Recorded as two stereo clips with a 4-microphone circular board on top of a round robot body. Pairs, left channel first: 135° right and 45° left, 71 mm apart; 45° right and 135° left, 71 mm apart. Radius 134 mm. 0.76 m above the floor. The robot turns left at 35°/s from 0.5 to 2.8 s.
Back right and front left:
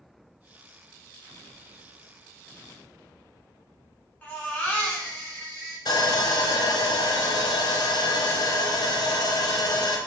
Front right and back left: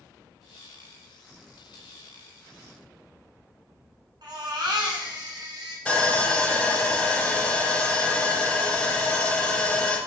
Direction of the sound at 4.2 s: 150° left.